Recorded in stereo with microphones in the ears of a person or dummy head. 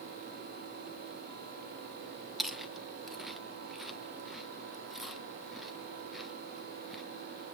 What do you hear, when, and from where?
2.4 s chewing: 5° left (ahead or behind), 0.7 m